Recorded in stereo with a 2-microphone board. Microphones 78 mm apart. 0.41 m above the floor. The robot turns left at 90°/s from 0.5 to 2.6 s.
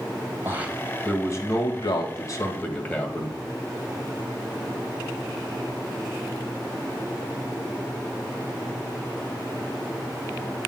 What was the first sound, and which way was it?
A man speaking, 150° right.